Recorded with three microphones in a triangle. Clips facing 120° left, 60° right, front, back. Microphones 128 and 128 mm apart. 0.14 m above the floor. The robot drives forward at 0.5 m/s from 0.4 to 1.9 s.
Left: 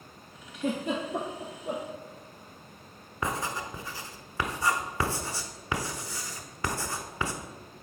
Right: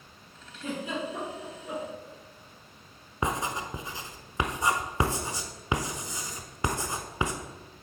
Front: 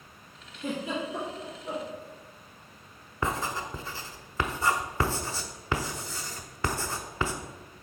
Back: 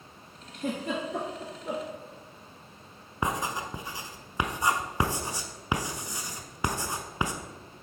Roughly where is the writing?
Behind right.